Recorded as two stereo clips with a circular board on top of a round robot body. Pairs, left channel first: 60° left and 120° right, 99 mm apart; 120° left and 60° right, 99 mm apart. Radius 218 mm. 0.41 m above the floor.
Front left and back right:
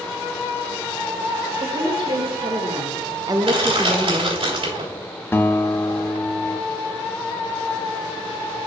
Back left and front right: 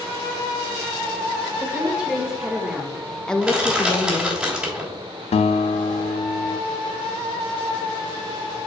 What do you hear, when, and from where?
1.6 s a woman speaking: 140° right, 2.5 m; by 4.4 s 90° left, 0.9 m
3.4 s crushing: 145° right, 3 m
5.3 s a guitar: 130° left, 0.5 m